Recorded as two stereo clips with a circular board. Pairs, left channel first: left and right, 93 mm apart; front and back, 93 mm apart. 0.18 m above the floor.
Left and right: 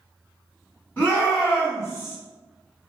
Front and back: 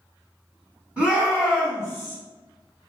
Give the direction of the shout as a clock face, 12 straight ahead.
8 o'clock.